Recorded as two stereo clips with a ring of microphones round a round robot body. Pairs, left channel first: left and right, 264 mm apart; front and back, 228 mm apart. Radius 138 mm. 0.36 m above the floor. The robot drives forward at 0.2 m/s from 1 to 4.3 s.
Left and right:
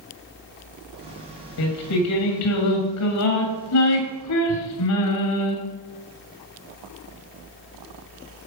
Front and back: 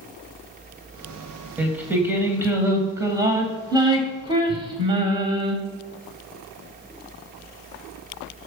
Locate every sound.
1.6 s singing: 95° left, 2.5 m; by 5.5 s 110° left, 2.5 m